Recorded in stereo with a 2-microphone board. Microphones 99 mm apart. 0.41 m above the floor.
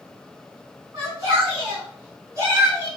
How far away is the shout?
About 4 m.